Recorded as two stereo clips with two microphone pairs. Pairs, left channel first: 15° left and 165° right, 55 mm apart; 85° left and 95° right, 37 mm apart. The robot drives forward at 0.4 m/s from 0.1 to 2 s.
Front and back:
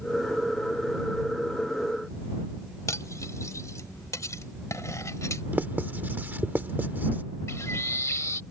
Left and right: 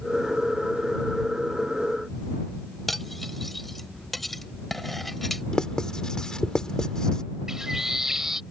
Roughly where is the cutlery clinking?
Ahead.